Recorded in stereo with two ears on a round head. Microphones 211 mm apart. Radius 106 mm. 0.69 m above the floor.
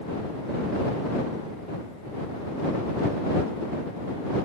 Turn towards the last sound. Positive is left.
No sound to turn to.